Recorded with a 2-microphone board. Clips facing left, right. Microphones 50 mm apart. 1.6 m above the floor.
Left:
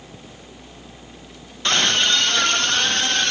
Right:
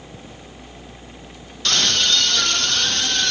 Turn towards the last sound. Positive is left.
turn(degrees=30)  # may be behind; listen again after turning